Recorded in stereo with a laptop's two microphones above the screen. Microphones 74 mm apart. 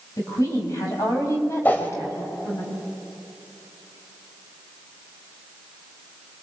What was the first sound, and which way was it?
A woman speaking, 50° left (ahead or behind).